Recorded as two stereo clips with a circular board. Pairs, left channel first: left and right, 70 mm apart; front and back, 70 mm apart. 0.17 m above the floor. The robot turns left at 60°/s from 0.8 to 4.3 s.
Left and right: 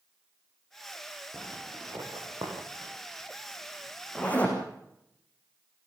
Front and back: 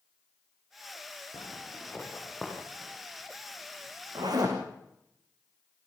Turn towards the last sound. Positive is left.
turn(degrees=160)